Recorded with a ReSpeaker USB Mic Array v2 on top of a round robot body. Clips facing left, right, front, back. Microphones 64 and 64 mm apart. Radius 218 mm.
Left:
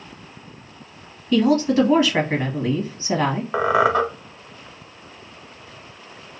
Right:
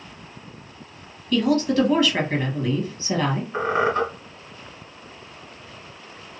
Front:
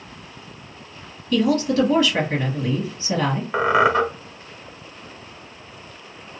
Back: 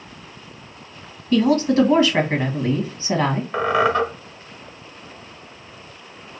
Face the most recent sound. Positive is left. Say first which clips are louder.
# left 4 dB, front 2 dB
turn(degrees=75)